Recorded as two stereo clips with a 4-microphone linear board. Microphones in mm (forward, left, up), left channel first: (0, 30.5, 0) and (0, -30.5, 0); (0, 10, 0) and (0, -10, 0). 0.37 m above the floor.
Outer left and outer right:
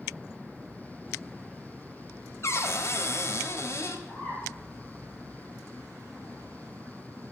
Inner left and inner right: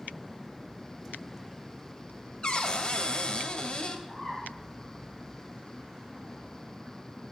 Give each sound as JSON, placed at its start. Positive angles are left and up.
{"t": 2.4, "sound": "a cupboard door", "side_deg": 50, "distance_m": 1.2}
{"t": 4.1, "sound": "a bird", "side_deg": 40, "distance_m": 6.5}